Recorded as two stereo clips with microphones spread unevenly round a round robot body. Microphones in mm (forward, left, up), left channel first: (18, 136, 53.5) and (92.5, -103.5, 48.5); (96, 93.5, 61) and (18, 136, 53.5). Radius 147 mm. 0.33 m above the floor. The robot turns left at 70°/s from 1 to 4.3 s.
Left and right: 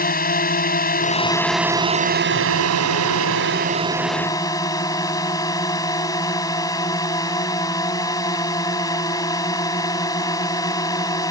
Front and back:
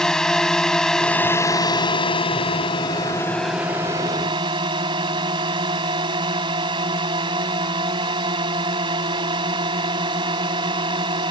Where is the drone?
55° left; by 11.3 s 175° right.